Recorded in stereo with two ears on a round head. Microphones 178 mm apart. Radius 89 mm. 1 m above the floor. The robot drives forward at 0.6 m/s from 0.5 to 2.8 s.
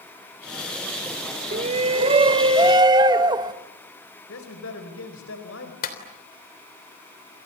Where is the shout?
35° right (ahead or behind), 1.0 m; by 3.5 s 20° right (ahead or behind), 1.5 m.